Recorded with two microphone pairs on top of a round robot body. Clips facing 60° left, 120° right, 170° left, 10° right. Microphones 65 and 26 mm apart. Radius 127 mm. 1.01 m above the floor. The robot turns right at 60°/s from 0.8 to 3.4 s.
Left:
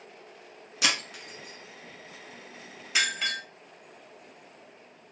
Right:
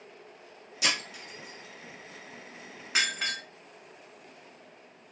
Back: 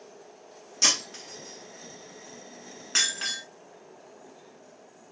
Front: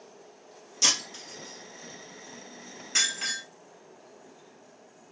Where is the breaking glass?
90° left, 1.1 m; by 3.4 s 120° right, 1.1 m.